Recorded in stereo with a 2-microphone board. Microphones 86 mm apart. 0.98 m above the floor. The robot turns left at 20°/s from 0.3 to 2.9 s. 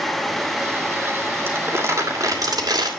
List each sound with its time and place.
1.5 s crumpling: 25° right (ahead or behind), 2.5 m; by 2.9 s 55° right (ahead or behind), 2.5 m